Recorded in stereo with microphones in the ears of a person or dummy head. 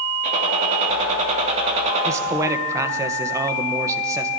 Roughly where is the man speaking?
Centre.